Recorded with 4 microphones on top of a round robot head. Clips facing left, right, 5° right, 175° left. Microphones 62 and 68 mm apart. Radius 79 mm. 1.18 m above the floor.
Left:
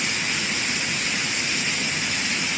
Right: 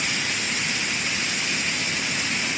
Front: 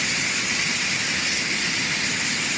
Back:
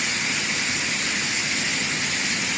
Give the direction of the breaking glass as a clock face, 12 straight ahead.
No breaking glass in this recording.